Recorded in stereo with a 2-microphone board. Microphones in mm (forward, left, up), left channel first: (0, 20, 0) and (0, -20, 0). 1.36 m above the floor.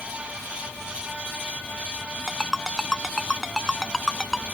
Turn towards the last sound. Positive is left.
turn(degrees=-5)  # may be behind; listen again after turning